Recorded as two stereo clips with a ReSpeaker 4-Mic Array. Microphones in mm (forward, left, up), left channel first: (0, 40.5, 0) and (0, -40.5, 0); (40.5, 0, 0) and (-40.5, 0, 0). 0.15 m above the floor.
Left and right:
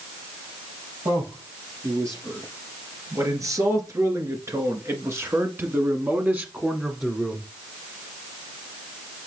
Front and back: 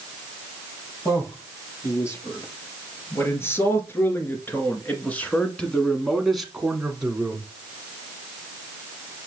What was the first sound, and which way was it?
A man speaking, 45° right.